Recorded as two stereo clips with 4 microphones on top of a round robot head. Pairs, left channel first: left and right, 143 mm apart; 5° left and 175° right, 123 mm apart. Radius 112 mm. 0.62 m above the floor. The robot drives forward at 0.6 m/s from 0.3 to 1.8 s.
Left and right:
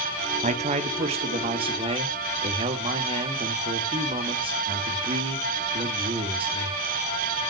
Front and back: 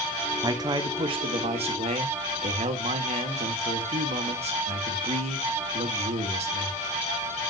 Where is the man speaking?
115° right, 1.3 m; by 6.8 s 145° right, 1.8 m.